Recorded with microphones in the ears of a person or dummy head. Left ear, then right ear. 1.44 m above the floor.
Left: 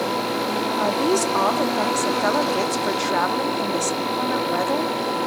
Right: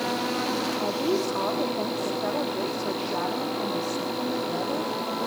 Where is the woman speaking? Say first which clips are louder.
Left 9 dB; 65° left (ahead or behind), 2.5 m.